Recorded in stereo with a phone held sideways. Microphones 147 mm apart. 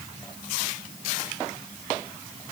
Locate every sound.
Only background noise.